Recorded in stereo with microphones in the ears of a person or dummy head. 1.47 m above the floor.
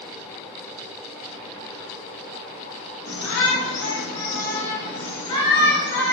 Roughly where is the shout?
Left.